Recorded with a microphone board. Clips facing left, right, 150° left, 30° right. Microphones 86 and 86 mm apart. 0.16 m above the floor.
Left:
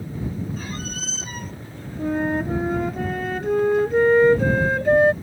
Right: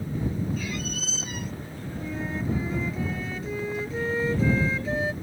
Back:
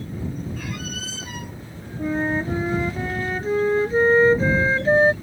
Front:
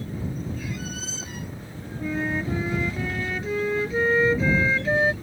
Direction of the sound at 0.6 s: 135° left.